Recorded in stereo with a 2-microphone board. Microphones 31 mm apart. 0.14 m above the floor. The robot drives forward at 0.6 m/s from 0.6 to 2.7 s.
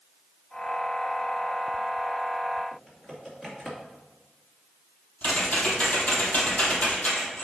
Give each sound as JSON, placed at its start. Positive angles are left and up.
{"t": 2.7, "sound": "typing on a keyboard", "side_deg": 15, "distance_m": 2.5}
{"t": 5.2, "sound": "typing on a keyboard", "side_deg": 55, "distance_m": 2.5}